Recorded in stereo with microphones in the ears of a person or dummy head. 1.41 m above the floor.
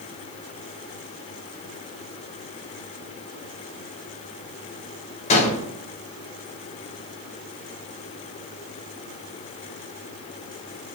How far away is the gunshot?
About 4.5 m.